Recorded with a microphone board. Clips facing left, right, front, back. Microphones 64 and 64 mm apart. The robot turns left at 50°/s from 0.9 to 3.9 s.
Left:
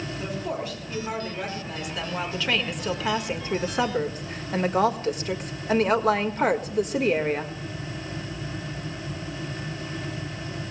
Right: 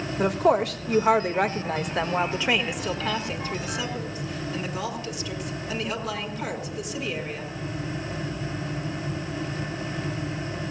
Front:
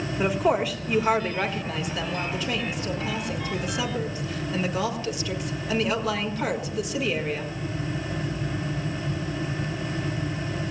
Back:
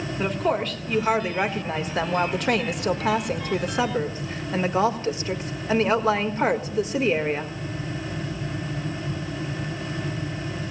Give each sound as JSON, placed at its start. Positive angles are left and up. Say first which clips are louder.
{"t": 0.2, "sound": "a woman speaking", "louder": "right 12 dB, front 2 dB", "azimuth_deg": -85, "distance_m": 1.5}